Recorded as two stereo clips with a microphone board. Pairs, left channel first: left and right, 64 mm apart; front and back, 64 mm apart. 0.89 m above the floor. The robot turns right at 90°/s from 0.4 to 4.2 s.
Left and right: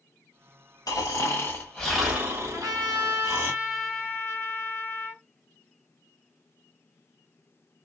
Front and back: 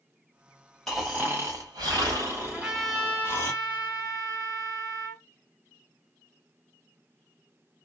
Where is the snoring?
85° left, 1.5 m; by 3.5 s 35° right, 1.5 m.